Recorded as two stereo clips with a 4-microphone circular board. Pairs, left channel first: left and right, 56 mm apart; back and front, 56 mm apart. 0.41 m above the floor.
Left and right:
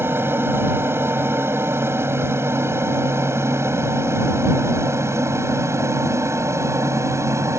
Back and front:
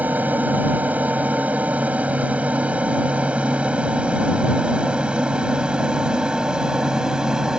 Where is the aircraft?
55° right; by 7.6 s 80° right.